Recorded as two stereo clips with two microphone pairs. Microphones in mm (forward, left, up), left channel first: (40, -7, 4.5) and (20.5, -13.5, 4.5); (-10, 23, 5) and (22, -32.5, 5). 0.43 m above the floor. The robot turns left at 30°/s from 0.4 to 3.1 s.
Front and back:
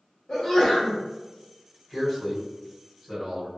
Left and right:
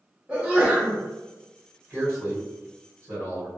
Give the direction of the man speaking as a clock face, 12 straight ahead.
1 o'clock.